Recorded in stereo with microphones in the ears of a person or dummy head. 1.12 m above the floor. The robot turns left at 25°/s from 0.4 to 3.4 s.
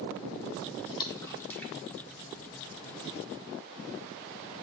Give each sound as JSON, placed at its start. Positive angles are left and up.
{"t": 0.9, "sound": "a splash", "side_deg": 30, "distance_m": 0.9}